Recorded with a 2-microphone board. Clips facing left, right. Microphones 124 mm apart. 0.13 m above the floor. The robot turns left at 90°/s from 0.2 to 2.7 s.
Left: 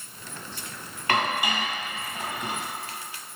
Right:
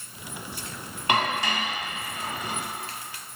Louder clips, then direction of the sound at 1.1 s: Even; 20° right (ahead or behind).